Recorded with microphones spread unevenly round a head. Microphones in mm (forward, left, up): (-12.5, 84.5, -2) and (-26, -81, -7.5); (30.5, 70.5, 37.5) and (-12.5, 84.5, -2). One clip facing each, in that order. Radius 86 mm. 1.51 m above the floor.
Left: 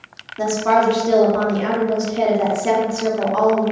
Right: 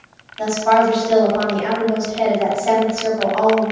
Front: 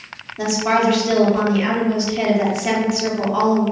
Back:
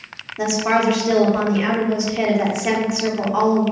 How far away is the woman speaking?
About 0.7 m.